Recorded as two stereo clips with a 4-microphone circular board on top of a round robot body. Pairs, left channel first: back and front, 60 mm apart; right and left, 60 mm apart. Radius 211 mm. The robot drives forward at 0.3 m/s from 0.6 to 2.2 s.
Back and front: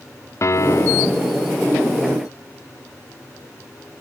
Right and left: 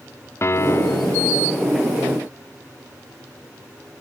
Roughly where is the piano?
Behind right.